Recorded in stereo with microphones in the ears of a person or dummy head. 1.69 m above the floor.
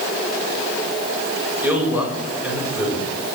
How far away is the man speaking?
About 7 m.